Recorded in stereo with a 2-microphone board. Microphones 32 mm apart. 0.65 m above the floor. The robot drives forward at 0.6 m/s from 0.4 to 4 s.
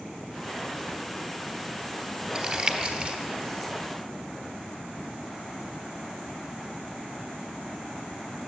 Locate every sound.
2.4 s crumpling: 30° right (ahead or behind), 1.7 m; by 3.2 s 45° right (ahead or behind), 1.3 m